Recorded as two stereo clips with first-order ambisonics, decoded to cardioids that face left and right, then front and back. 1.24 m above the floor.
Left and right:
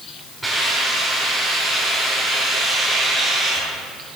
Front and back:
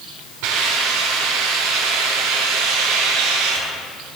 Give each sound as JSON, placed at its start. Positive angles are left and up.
{"t": 0.4, "sound": "a hiss", "azimuth_deg": 180, "distance_m": 4.5}